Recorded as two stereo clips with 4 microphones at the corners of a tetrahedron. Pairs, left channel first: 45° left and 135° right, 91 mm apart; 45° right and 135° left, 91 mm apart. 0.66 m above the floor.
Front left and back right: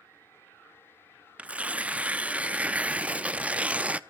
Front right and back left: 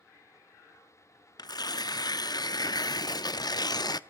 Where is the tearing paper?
60° right, 0.5 m.